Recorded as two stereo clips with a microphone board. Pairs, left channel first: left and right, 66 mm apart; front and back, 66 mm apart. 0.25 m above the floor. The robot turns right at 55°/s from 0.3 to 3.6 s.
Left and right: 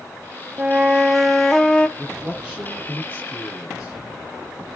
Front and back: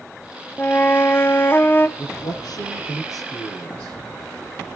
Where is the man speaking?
35° right, 7 m; by 4.0 s 50° left, 7 m.